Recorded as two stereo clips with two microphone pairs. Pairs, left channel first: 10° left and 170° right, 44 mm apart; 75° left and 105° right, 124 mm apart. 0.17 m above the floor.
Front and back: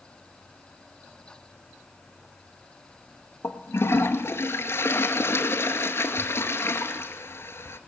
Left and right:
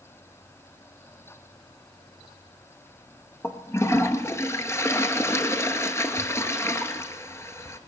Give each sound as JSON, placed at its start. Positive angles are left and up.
{"t": 3.4, "sound": "a toilet flushing", "azimuth_deg": 10, "distance_m": 0.9}